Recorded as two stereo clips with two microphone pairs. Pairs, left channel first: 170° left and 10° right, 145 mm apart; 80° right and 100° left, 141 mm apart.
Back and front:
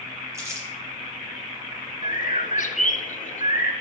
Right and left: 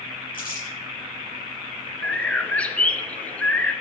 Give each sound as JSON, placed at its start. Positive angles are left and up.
{"t": 0.3, "sound": "crumpling", "azimuth_deg": -80, "distance_m": 6.0}
{"t": 2.0, "sound": "a bird", "azimuth_deg": -160, "distance_m": 0.9}